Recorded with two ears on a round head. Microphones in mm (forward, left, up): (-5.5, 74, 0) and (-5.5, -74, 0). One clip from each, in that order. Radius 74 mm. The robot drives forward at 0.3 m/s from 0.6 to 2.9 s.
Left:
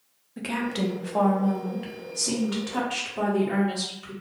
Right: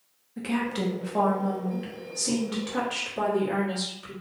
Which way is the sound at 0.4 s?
15° left (ahead or behind).